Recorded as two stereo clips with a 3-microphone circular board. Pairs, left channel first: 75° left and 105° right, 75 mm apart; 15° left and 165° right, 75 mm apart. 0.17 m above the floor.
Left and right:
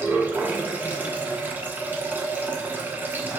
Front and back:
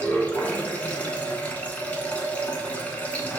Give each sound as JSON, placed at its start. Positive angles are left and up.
{"t": 0.0, "sound": "running water", "azimuth_deg": -50, "distance_m": 0.8}